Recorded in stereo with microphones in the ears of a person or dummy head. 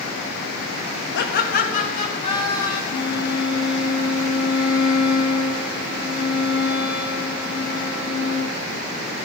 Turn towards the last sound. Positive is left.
turn(degrees=60)  # may be behind; listen again after turning